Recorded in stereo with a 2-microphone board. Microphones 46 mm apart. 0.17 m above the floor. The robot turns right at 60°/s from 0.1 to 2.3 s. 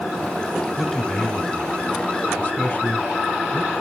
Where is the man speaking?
5° left (ahead or behind), 1.1 m; by 3.7 s 30° left (ahead or behind), 1.1 m.